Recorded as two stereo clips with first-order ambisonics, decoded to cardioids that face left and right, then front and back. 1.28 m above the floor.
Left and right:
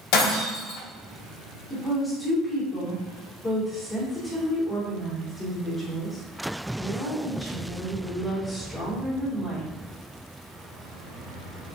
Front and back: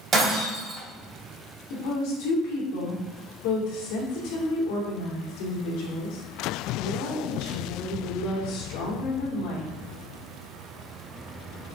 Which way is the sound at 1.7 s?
15° left.